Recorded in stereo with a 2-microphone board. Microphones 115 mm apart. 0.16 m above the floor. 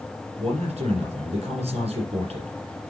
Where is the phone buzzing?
No phone buzzing in this recording.